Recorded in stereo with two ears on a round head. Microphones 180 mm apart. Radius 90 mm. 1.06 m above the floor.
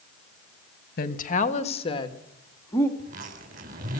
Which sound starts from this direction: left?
A woman speaking, at 1.0 s.